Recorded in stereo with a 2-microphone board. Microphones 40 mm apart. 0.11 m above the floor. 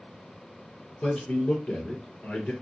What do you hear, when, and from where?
1.0 s a man speaking: 40° left (ahead or behind), 2.0 m